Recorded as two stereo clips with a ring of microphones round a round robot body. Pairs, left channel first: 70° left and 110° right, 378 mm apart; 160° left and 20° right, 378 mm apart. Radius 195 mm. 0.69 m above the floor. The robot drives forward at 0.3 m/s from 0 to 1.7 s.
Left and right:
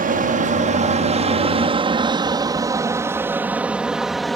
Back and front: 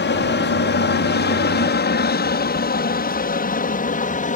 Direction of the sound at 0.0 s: 165° right.